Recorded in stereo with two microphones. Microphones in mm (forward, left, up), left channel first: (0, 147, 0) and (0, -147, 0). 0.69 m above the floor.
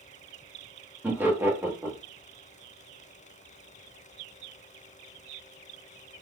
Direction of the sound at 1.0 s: 5° right (ahead or behind).